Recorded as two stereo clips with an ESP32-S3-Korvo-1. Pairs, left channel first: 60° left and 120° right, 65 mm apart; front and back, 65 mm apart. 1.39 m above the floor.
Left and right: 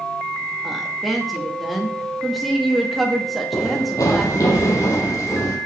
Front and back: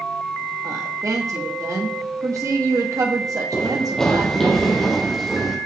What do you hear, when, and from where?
0.6 s a woman speaking: 150° left, 2.5 m
3.5 s running footsteps: 80° left, 3 m; by 5.6 s 95° left, 4 m